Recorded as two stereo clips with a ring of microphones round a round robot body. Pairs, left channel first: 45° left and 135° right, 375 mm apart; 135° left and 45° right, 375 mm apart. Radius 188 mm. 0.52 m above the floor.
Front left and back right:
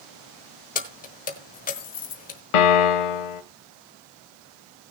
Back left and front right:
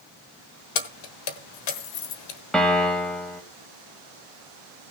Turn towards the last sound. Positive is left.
turn(degrees=45)